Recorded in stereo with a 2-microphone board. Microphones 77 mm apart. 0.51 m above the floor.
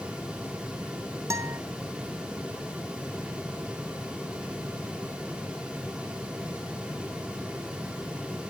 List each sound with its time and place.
1.3 s a guitar: 45° right (ahead or behind), 0.9 m